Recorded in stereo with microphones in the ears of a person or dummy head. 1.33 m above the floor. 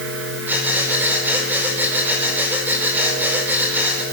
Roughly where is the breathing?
Centre.